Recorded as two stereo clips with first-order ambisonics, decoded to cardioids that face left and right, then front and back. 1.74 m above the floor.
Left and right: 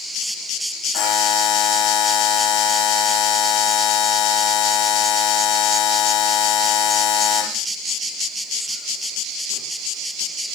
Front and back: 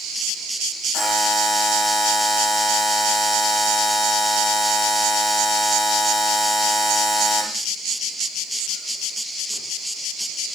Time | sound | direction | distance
0.9 | a buzzer | 90° left | 2 m